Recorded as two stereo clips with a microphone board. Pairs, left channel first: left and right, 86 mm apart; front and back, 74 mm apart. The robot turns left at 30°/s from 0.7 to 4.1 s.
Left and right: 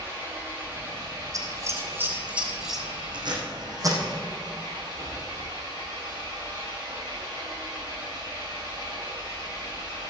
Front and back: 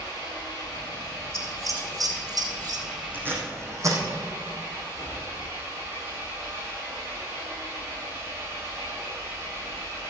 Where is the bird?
No bird in this recording.